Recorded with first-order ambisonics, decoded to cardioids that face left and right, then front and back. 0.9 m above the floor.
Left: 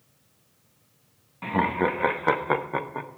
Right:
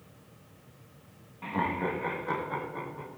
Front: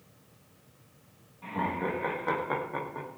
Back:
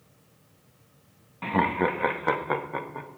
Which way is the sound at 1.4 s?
155° left.